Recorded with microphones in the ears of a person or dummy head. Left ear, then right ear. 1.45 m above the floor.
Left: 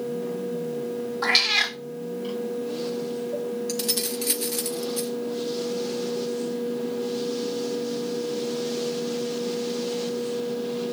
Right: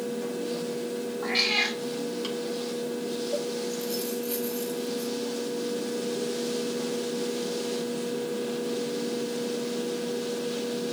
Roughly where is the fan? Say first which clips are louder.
Left 2 dB; right.